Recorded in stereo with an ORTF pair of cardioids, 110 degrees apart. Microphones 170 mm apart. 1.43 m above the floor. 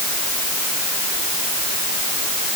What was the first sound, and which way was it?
Only background noise.